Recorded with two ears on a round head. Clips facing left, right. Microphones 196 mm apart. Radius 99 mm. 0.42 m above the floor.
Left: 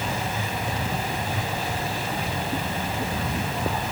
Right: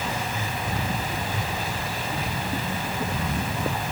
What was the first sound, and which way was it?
Only background noise.